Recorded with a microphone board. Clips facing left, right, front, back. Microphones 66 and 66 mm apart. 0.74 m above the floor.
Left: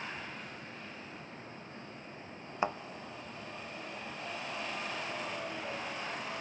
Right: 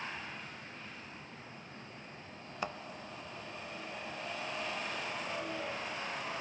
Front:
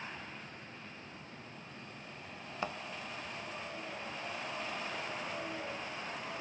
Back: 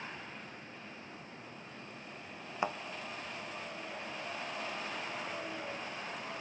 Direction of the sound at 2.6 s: 125° left.